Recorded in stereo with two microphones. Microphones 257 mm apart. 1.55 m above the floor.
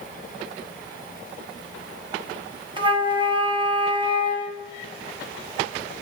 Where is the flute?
20° right (ahead or behind), 1.1 m.